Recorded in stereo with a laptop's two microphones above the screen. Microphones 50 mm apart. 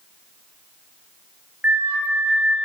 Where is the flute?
45° right (ahead or behind), 4 m.